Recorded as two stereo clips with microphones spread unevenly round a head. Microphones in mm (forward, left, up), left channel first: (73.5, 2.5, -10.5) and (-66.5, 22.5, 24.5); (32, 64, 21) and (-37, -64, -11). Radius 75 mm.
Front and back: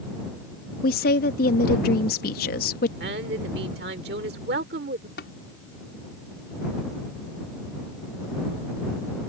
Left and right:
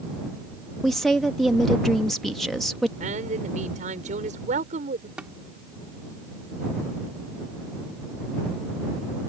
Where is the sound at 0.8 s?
30° right.